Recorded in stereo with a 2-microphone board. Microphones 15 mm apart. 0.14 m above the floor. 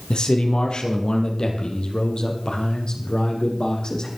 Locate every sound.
0.1 s a man speaking: 70° left (ahead or behind), 3.5 m; by 4.1 s 50° left (ahead or behind), 5.5 m